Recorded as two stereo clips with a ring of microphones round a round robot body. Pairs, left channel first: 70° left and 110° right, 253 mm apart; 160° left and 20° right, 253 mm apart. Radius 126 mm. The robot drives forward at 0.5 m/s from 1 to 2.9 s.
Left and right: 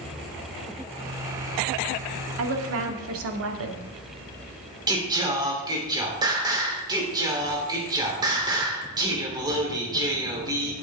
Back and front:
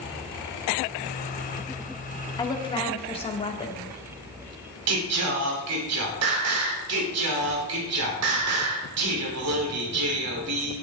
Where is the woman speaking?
130° right, 1.8 m; by 3.8 s 135° right, 1.9 m.